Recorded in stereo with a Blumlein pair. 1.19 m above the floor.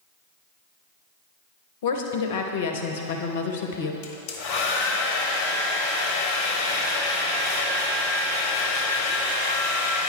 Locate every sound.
1.8 s a woman speaking: 55° left, 0.8 m
4.0 s a hair dryer: 40° left, 0.9 m